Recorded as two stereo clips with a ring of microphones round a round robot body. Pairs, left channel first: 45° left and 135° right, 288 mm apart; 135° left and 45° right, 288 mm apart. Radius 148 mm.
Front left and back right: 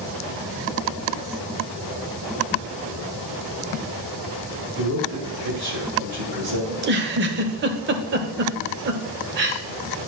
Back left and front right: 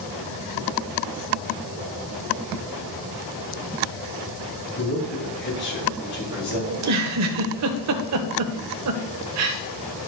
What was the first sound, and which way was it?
A man speaking, 170° right.